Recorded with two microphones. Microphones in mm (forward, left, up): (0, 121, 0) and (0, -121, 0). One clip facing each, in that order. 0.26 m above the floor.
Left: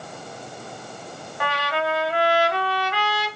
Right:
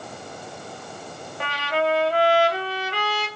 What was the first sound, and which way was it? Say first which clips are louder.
A trumpet: right 2 dB; 35° right (ahead or behind).